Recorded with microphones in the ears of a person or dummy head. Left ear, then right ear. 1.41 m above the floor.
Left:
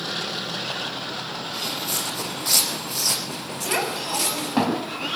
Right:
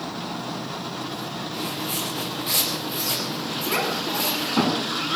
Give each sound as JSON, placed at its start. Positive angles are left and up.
{"t": 1.5, "sound": "footsteps", "side_deg": 50, "distance_m": 4.5}
{"t": 3.6, "sound": "a child speaking", "side_deg": 50, "distance_m": 6.5}